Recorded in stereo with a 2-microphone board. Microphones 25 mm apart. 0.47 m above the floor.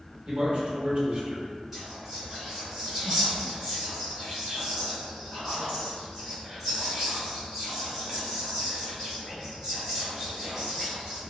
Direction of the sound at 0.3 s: 50° right (ahead or behind).